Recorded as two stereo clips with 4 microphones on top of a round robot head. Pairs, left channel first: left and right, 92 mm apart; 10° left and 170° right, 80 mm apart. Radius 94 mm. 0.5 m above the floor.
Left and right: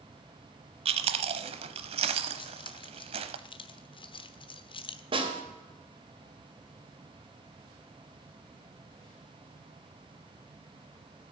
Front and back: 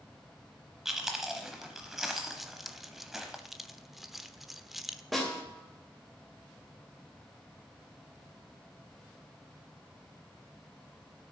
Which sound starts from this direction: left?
Keys jangling, at 2.4 s.